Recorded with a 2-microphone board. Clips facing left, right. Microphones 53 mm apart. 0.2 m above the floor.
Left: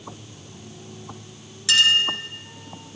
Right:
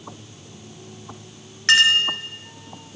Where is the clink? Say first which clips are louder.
Right 2 dB; 50° right (ahead or behind), 2 m.